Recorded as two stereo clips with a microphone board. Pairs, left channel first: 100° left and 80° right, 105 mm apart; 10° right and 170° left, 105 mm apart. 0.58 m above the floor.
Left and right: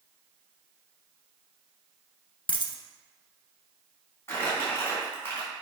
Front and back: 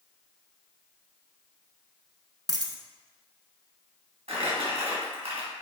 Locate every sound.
2.5 s a dropped coin: 125° left, 0.9 m
4.3 s crumpling: 165° left, 3 m